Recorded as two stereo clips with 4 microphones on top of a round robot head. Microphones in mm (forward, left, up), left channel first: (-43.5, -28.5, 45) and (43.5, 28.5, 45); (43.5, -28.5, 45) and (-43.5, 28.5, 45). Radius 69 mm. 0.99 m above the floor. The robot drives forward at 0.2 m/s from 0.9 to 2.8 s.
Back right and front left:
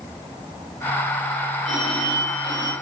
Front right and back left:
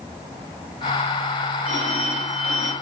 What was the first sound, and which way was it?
A phone ringing, 165° left.